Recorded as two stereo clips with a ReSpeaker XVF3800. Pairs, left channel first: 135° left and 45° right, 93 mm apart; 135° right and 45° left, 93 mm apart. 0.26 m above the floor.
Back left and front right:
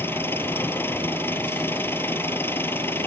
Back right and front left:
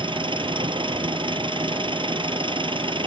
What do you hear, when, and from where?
0.0 s an engine running: 70° left